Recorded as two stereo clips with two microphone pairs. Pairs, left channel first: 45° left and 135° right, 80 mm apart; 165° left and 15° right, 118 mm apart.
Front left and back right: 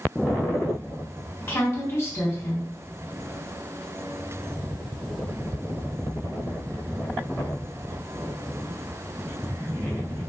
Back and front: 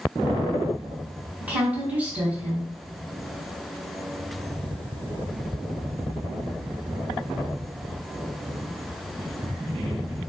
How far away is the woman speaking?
About 1.4 m.